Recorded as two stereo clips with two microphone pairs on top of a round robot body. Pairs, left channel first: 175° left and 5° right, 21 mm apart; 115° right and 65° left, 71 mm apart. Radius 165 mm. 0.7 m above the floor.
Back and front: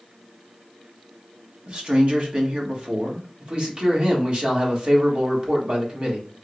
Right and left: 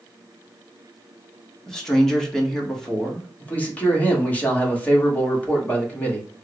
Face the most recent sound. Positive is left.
turn(degrees=-40)